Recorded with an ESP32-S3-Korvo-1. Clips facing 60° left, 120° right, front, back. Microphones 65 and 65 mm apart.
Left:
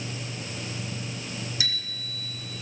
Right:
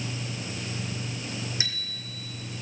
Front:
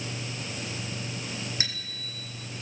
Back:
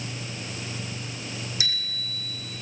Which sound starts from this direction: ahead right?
A bicycle bell, at 1.6 s.